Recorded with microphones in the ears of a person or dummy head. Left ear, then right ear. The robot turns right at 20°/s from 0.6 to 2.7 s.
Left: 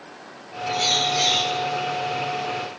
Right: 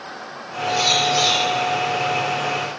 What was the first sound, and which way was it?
A bird, 70° right (ahead or behind).